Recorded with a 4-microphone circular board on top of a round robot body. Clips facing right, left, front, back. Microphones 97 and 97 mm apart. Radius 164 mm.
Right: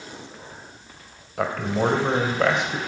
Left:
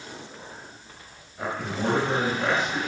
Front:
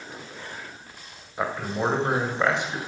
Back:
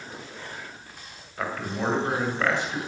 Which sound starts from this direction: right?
A man speaking, at 1.4 s.